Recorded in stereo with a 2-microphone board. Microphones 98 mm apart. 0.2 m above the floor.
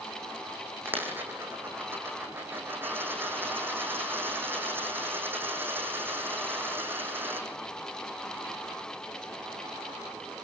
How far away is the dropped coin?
About 5 m.